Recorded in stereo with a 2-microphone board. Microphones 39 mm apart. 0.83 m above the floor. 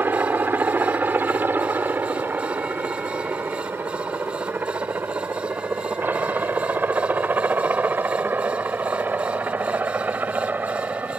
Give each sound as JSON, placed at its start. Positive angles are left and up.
{"t": 0.0, "sound": "a helicopter", "side_deg": -55}